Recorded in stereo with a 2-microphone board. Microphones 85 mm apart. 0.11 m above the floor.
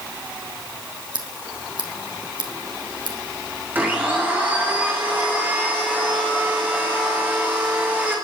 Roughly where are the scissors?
Right.